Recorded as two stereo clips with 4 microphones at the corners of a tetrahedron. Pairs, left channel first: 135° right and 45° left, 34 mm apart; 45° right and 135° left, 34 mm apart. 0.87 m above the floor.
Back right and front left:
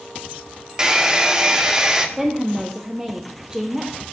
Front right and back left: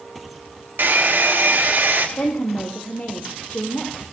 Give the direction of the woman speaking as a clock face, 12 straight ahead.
1 o'clock.